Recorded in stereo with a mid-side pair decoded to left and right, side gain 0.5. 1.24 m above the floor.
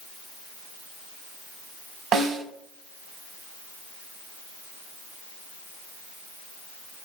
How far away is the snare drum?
About 2.5 m.